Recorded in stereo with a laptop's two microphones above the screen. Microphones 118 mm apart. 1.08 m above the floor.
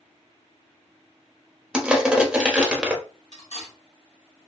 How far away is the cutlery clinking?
About 1.7 m.